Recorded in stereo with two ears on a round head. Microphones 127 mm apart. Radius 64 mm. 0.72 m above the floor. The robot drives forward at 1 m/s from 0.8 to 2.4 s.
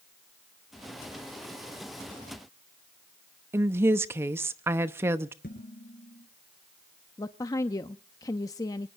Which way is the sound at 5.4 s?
65° left (ahead or behind).